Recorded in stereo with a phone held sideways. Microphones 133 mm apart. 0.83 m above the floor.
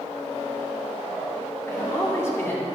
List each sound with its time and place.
1.7 s a man speaking: 20° left (ahead or behind), 2.5 m